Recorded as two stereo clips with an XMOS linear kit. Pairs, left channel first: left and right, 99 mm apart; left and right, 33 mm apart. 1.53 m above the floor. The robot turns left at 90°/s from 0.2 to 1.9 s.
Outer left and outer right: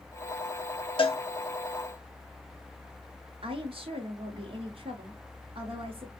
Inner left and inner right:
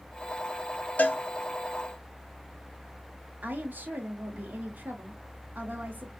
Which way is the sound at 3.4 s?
60° right (ahead or behind).